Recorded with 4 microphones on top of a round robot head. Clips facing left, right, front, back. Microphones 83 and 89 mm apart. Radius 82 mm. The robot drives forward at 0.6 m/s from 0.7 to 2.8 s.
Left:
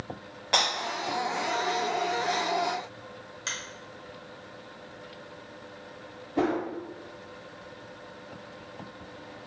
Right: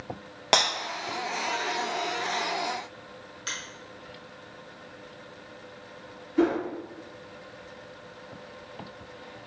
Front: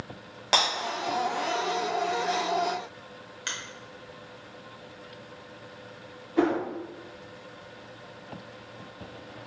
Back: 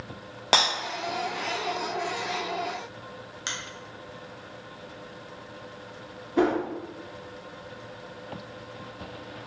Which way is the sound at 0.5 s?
120° right.